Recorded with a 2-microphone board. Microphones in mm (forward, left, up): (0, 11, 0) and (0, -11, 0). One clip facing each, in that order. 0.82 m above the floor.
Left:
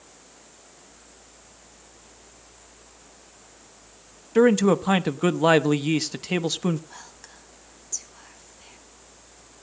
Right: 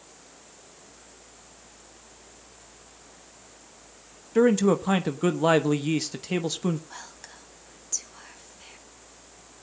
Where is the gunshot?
I don't hear a gunshot.